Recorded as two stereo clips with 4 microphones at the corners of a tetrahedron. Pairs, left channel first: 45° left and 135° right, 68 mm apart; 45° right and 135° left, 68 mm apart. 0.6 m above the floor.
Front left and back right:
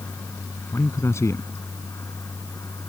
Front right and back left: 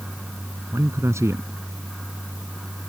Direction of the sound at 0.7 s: 90° left.